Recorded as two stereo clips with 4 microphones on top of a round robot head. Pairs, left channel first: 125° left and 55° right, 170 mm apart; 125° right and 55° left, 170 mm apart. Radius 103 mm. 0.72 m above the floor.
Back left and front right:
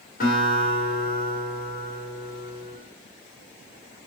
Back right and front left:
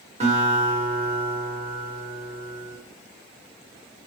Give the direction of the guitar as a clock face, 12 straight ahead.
9 o'clock.